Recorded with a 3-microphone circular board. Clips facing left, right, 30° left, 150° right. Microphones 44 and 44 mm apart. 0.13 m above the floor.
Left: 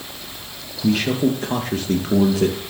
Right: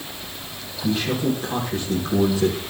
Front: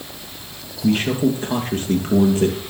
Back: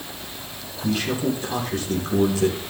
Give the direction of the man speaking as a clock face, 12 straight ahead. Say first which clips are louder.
Left 4 dB, front 5 dB; 9 o'clock.